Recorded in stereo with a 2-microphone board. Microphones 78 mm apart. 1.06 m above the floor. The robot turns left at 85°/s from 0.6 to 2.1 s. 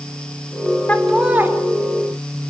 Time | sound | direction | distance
0.9 | laughter | 20° left | 3.5 m